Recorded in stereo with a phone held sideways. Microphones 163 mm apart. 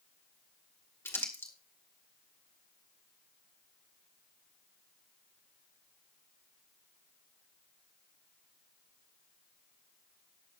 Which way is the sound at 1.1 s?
15° left (ahead or behind).